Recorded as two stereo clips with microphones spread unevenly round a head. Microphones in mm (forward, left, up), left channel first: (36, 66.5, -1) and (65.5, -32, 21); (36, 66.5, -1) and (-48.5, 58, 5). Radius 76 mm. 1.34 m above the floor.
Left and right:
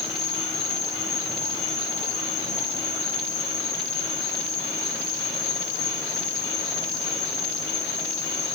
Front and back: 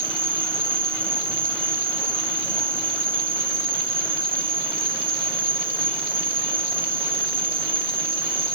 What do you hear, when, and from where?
0.0 s an insect: 170° right, 1.5 m